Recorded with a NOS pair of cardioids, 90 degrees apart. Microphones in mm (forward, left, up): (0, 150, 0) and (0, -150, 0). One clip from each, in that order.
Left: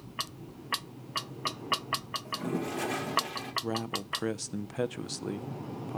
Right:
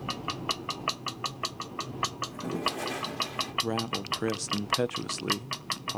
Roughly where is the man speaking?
Ahead.